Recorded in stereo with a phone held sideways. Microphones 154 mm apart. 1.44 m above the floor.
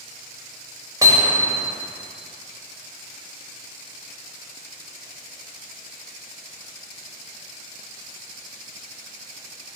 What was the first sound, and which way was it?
Hammering, 20° right (ahead or behind).